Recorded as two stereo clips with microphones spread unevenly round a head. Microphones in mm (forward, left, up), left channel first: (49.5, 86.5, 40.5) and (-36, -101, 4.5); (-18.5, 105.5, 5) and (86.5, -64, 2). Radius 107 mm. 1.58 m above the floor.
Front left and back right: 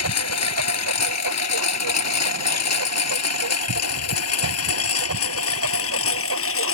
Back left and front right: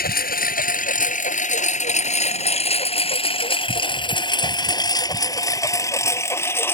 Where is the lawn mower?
80° left; by 6.8 s 45° left.